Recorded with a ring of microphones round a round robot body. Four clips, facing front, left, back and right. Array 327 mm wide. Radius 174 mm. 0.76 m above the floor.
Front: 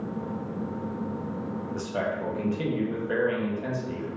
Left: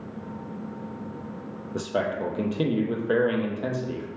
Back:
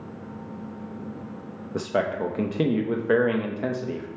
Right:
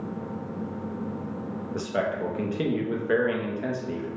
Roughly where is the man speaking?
Behind.